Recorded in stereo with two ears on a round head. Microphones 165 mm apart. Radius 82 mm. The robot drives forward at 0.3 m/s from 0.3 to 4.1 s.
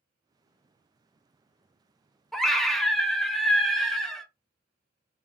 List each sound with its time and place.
2.3 s a scream: centre (ahead or behind), 0.6 m